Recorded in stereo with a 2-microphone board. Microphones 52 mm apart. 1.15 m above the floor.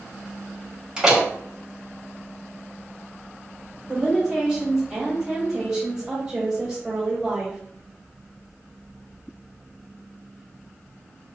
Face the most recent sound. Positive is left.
turn(degrees=-15)  # may be behind; listen again after turning